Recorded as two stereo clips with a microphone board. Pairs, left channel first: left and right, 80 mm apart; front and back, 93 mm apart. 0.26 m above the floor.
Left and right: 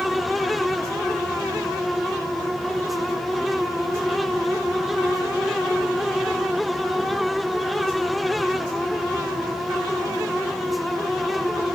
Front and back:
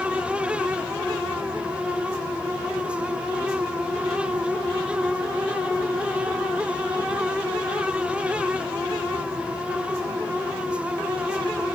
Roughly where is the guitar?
I don't hear a guitar.